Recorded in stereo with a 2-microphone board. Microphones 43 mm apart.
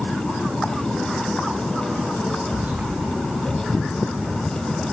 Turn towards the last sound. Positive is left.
turn(degrees=-45)  # may be behind; listen again after turning